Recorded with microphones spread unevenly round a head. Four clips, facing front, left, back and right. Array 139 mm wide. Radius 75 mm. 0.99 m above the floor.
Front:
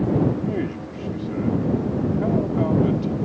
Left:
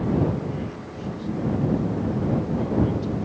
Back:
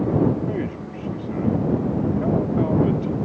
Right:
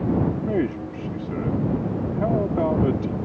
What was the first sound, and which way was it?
A man speaking, 90° right.